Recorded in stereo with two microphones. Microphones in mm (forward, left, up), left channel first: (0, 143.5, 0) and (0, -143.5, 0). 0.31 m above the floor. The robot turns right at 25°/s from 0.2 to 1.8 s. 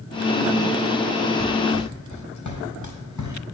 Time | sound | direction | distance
1.4 | running footsteps | 70° left (ahead or behind) | 5.5 m